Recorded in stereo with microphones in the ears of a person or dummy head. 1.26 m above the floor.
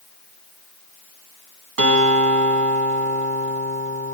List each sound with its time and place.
1.8 s a guitar: 70° right (ahead or behind), 3.5 m